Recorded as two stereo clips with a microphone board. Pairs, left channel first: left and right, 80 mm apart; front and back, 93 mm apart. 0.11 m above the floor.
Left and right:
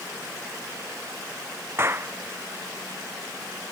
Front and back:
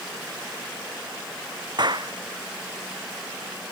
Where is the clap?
145° right.